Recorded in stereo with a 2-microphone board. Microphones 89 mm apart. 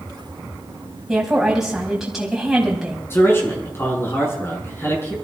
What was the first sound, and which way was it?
A woman speaking, 5° right (ahead or behind).